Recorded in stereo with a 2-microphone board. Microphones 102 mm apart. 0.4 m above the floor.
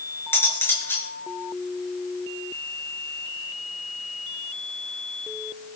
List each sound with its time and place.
0.3 s cutlery clinking: 25° left (ahead or behind), 4 m